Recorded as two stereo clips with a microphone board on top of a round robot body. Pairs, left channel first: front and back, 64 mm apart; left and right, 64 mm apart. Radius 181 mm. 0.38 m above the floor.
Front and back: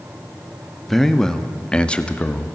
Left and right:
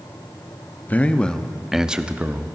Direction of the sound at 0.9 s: 80° left.